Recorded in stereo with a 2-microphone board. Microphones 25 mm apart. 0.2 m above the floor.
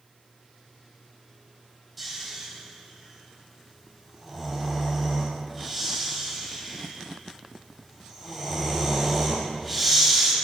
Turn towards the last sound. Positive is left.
turn(degrees=0)  # may be behind; listen again after turning